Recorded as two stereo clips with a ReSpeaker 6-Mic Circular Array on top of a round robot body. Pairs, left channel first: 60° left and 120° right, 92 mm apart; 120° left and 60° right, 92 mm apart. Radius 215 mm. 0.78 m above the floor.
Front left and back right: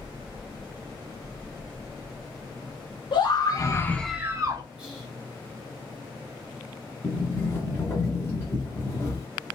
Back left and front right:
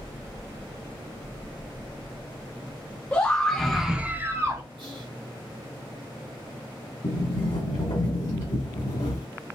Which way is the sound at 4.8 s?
40° right.